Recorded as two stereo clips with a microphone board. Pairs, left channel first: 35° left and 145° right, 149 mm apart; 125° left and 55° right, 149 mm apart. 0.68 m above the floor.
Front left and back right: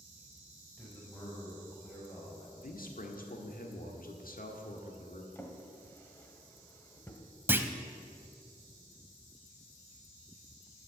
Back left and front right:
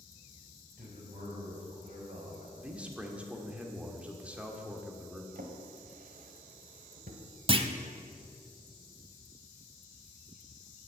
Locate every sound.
0.8 s a man speaking: 50° right, 4.5 m; by 2.5 s 45° right, 5.5 m
2.6 s a man speaking: 25° left, 1.4 m
5.3 s a drawer: 40° right, 1.2 m
7.5 s a clunk: 80° right, 0.6 m